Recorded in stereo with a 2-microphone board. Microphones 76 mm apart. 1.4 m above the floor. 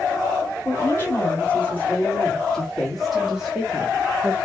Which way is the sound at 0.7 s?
30° left (ahead or behind).